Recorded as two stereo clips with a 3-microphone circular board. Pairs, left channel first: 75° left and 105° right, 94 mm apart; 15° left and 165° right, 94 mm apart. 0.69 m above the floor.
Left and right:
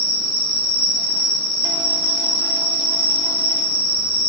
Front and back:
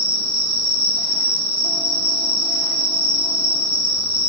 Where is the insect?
145° right, 3.5 m.